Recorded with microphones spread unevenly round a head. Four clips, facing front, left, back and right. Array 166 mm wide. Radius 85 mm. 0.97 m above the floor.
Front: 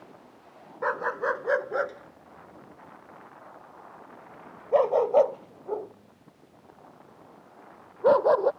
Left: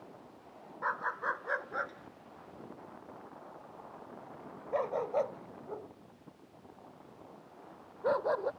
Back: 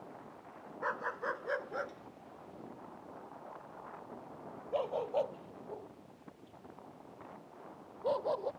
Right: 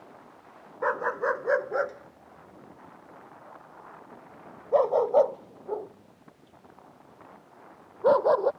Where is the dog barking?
45° right; by 8.5 s 30° right.